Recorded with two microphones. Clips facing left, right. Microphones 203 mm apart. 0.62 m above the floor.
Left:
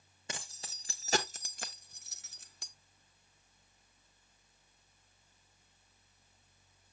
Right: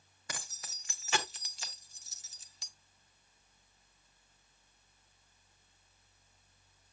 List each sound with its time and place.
0.3 s keys jangling: 25° left (ahead or behind), 1.3 m; by 2.7 s 50° left (ahead or behind), 0.8 m